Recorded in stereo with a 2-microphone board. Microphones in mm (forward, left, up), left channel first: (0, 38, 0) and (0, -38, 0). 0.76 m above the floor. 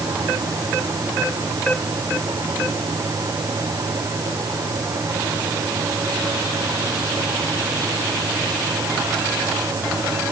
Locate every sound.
Only background noise.